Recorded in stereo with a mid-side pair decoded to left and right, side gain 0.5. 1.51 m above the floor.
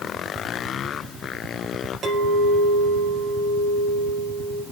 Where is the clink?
50° right, 4 m.